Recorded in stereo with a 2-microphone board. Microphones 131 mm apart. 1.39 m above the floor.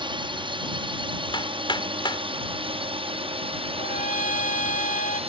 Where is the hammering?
35° left (ahead or behind).